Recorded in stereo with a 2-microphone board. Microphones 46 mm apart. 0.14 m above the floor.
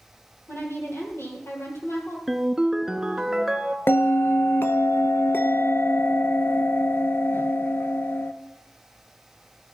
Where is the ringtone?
10° right (ahead or behind), 0.7 m.